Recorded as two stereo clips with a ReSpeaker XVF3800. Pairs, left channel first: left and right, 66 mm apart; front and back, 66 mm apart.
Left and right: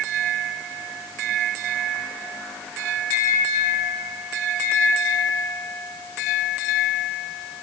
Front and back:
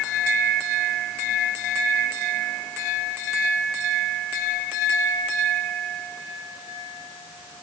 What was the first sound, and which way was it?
Only background noise.